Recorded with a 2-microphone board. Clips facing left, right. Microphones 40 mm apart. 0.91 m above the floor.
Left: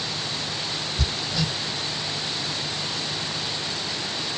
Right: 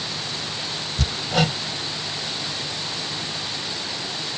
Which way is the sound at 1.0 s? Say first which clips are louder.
Right 8 dB; 65° right (ahead or behind).